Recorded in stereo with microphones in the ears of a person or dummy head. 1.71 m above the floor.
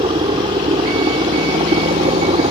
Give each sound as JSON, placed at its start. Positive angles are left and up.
{"t": 0.0, "sound": "a helicopter", "side_deg": -30}